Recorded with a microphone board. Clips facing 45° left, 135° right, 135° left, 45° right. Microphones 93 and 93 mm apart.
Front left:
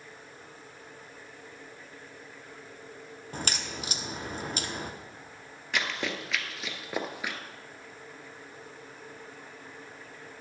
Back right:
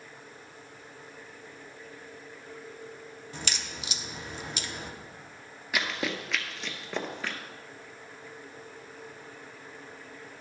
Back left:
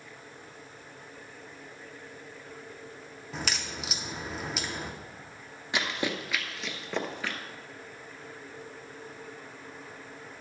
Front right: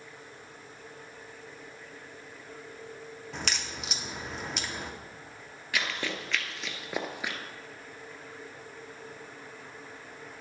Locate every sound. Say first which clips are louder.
3.3 s a crack: front left 4 dB, back left 2 dB; 50° left, 0.7 m
5.7 s running footsteps: back right 1 dB, back left 2 dB; 150° left, 1.2 m; by 7.4 s 5° right, 1.1 m